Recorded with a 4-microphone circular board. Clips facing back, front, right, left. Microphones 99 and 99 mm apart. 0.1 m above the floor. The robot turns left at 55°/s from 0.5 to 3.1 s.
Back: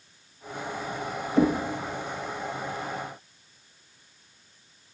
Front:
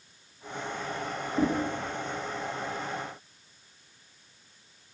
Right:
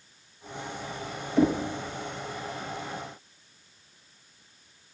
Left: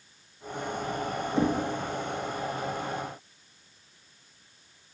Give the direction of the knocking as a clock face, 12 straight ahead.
7 o'clock.